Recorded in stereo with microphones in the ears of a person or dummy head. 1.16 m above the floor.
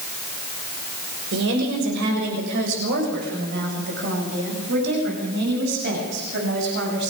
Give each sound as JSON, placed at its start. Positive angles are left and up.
{"t": 1.3, "sound": "a woman speaking", "side_deg": -65, "distance_m": 6.0}